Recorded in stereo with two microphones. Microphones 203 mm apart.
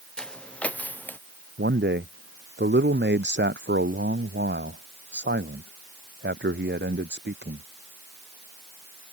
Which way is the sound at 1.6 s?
60° right (ahead or behind).